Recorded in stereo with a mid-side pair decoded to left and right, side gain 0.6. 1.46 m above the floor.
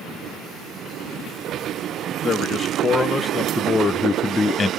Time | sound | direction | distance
2.2 | a man speaking | 20° left | 2.0 m